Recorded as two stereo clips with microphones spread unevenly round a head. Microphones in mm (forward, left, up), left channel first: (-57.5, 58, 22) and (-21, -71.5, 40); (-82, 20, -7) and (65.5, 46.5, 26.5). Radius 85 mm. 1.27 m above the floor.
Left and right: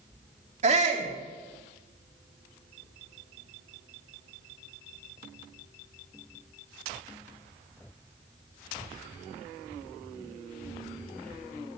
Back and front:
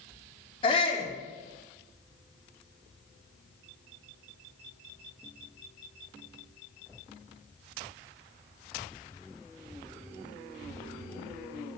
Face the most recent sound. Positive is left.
turn(degrees=-110)